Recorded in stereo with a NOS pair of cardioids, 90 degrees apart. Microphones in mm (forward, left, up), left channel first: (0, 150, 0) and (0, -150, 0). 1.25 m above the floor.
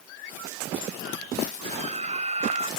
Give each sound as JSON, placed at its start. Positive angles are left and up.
{"t": 1.6, "sound": "a scream", "azimuth_deg": -20}